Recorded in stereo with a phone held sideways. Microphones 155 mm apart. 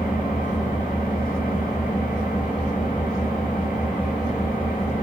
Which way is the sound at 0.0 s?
60° left (ahead or behind).